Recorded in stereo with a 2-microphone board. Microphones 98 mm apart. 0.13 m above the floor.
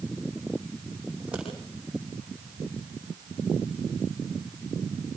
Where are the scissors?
10° right (ahead or behind), 7.5 m.